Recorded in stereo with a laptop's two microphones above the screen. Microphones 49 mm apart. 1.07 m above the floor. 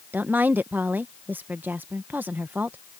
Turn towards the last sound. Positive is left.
turn(degrees=-40)  # may be behind; listen again after turning